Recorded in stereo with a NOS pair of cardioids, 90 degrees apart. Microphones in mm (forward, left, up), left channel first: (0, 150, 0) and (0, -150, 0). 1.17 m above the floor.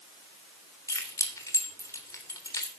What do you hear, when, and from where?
0.9 s keys jangling: 10° left, 3.5 m